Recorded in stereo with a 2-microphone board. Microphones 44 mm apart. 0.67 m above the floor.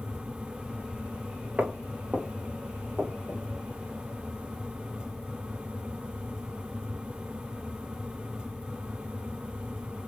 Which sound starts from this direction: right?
Footsteps, at 1.6 s.